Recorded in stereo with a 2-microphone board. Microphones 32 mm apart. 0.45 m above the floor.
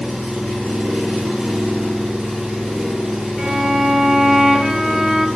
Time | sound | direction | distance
0.0 | an engine running | 35° right (ahead or behind) | 3.5 m
3.4 | a violin | 25° right (ahead or behind) | 0.6 m